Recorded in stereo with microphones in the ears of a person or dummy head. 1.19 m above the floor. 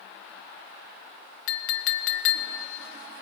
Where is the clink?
75° left (ahead or behind), 0.8 m.